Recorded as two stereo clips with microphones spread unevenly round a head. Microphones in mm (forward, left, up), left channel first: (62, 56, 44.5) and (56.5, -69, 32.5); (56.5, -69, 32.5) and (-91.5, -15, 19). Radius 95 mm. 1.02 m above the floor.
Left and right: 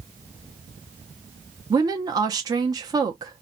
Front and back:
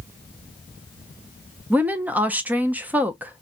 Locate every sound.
1.7 s a woman speaking: 130° right, 0.6 m